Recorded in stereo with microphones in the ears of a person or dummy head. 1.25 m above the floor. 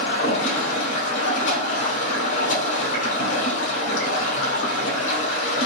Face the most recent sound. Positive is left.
turn(degrees=70)  # may be behind; listen again after turning